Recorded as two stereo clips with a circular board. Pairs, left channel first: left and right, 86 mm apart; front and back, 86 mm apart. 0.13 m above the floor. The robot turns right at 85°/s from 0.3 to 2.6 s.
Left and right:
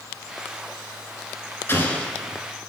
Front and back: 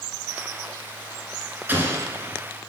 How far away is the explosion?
About 1.5 m.